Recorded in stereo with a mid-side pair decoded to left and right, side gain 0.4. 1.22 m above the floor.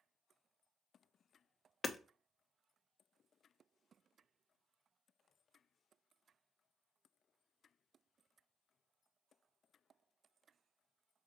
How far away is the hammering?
About 0.7 m.